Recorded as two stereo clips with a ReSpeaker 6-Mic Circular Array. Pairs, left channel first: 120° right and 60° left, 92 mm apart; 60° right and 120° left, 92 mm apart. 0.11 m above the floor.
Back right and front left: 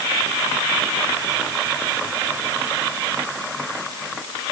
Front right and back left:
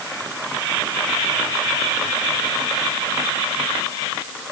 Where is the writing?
I don't hear writing.